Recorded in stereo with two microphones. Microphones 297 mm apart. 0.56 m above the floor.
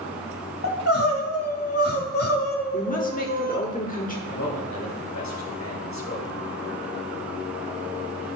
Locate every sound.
0.6 s crying: 55° left (ahead or behind), 1.6 m
2.7 s a woman speaking: 25° left (ahead or behind), 1.3 m
4.3 s a man speaking: 65° left (ahead or behind), 2 m